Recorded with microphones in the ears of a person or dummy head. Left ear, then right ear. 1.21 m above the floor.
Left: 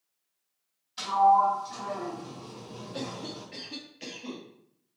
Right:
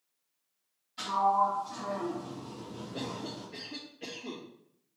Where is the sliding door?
35° left (ahead or behind), 3 m.